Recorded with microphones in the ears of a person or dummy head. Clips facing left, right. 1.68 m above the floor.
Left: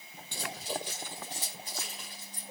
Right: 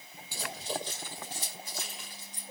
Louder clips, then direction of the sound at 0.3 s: Right 1 dB; 10° right (ahead or behind).